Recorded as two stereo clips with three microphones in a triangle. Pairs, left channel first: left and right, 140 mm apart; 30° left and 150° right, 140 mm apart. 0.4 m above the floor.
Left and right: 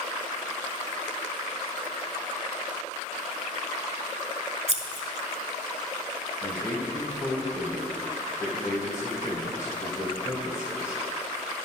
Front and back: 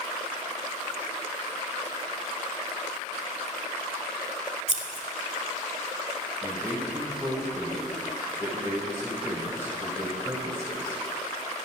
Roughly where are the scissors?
Behind right.